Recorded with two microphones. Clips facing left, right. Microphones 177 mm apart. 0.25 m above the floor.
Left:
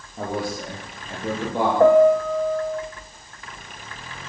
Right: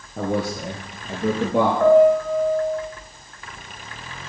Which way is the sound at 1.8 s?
35° left (ahead or behind).